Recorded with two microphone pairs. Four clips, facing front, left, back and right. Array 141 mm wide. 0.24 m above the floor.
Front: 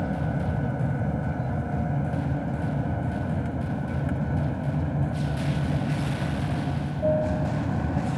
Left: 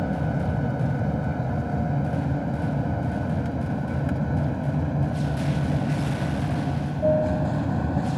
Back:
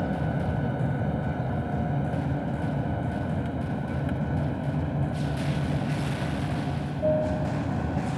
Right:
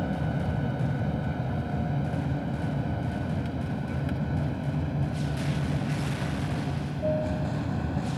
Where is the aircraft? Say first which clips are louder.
Left 4 dB, even; 100° left; by 8.2 s 85° left.